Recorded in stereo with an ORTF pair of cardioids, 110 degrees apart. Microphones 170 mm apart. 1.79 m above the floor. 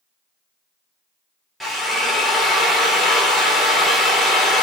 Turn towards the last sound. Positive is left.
turn(degrees=0)